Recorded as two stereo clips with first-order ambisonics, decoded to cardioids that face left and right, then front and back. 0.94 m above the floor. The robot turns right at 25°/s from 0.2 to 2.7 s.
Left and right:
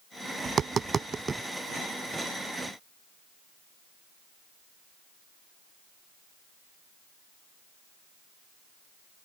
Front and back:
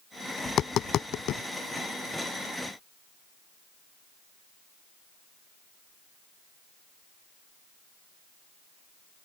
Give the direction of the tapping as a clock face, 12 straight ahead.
1 o'clock.